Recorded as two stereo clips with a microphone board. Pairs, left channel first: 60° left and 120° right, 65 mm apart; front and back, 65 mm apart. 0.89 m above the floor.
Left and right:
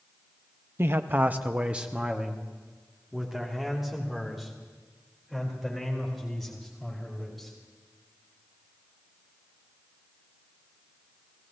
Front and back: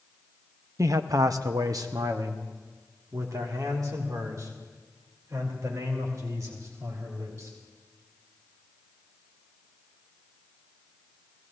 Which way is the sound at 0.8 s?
165° right.